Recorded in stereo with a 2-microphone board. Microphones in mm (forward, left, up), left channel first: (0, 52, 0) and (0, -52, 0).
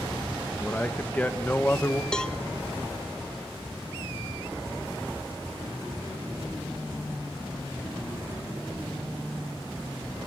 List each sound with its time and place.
0.6 s a man speaking: 15° left (ahead or behind), 1.6 m; by 2.0 s 20° left (ahead or behind), 0.9 m
2.1 s a cowbell: 10° left (ahead or behind), 1.3 m